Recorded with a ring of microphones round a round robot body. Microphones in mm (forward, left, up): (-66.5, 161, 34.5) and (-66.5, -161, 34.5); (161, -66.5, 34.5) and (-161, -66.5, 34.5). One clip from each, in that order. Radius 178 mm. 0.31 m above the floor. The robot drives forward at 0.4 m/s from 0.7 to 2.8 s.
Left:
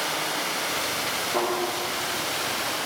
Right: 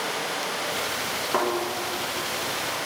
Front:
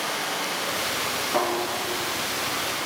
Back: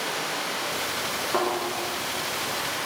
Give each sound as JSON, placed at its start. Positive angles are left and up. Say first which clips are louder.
{"t": 0.0, "sound": "running water", "louder": "left 1 dB, front 1 dB", "azimuth_deg": 95, "distance_m": 1.8}
{"t": 1.3, "sound": "a thud", "louder": "right 3 dB, front 1 dB", "azimuth_deg": -125, "distance_m": 2.0}